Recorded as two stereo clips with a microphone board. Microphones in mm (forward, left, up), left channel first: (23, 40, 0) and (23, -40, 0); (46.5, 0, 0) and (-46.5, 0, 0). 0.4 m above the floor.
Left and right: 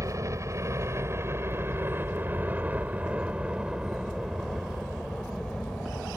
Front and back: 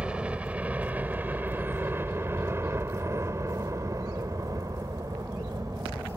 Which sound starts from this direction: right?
A helicopter, at 0.0 s.